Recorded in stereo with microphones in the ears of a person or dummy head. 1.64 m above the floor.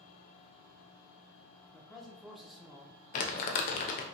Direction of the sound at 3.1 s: 45° left (ahead or behind).